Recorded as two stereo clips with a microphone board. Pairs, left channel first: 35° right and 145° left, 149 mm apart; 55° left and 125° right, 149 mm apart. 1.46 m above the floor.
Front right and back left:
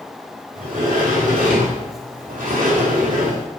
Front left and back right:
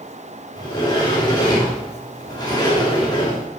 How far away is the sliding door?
About 3.5 m.